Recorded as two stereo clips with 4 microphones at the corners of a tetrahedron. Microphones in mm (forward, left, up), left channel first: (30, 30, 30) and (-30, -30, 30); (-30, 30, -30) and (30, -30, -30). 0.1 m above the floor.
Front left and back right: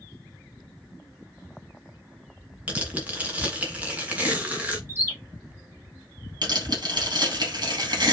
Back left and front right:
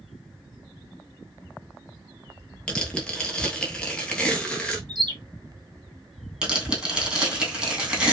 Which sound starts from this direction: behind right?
Tearing paper, at 6.4 s.